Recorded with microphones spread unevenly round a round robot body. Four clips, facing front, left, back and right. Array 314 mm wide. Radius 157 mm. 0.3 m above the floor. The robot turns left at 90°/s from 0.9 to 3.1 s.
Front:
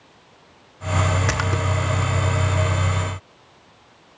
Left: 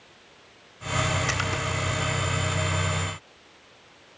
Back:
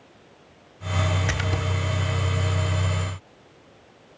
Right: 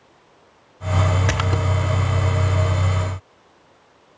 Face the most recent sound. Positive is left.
turn(degrees=130)